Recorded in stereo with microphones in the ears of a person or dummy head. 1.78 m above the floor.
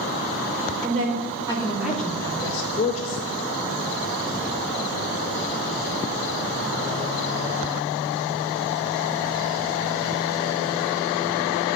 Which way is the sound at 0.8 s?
40° right (ahead or behind).